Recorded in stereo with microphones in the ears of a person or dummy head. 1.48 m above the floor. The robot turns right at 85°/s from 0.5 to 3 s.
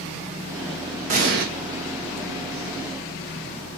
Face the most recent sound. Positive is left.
turn(degrees=20)